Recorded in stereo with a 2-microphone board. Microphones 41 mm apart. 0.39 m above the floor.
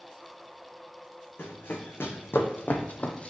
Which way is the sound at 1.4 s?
65° left (ahead or behind).